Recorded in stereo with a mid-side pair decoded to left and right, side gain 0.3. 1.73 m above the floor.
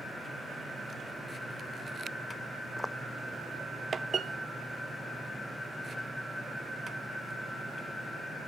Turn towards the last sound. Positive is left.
turn(degrees=20)